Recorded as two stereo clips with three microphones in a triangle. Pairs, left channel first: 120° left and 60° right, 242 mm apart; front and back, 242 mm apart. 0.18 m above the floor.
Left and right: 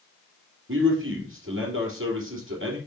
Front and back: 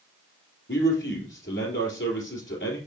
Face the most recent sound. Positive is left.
turn(degrees=-35)